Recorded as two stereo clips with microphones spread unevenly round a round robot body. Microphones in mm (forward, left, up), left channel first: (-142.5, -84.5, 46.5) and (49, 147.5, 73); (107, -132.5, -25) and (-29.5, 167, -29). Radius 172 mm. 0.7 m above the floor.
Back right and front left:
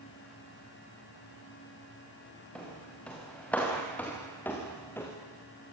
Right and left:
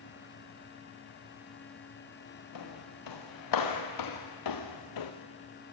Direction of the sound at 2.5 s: 40° right.